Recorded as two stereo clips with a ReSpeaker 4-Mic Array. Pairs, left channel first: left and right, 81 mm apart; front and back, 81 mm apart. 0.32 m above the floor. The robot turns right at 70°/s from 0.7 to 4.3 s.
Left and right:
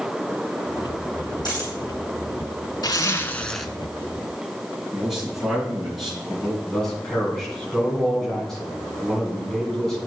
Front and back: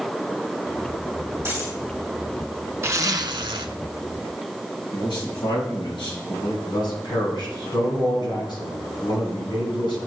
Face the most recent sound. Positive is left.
turn(degrees=5)